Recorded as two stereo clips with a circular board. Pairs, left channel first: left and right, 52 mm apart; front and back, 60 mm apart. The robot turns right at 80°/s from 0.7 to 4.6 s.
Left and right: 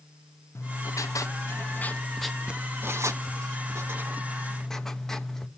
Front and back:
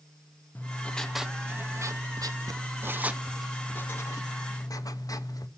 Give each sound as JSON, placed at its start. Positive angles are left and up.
{"t": 0.6, "sound": "writing", "azimuth_deg": 55, "distance_m": 0.8}